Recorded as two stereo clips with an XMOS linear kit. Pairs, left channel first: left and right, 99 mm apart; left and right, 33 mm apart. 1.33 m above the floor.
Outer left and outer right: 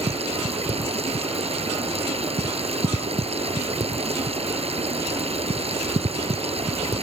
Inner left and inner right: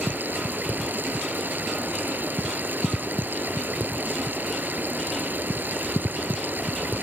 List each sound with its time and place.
0.0 s running water: 90° right